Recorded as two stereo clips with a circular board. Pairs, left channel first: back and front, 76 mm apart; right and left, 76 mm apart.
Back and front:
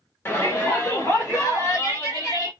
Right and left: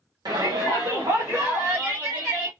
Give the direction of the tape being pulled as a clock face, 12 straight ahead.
I don't hear tape being pulled.